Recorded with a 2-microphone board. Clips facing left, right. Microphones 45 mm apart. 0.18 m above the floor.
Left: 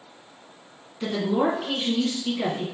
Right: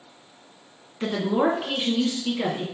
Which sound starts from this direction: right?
A woman speaking, at 1.0 s.